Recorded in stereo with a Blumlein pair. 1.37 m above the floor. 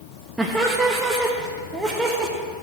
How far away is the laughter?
About 1.2 m.